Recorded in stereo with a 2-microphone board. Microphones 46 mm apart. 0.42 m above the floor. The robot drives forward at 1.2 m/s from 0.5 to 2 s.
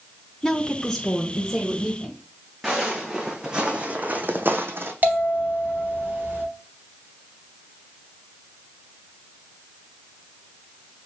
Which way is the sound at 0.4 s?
15° left (ahead or behind).